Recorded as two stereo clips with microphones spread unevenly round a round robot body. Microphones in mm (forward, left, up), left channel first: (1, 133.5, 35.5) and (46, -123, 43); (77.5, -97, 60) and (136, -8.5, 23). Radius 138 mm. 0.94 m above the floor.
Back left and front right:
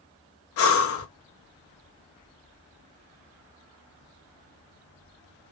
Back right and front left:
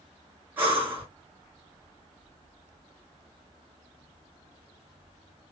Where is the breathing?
110° left, 0.8 m.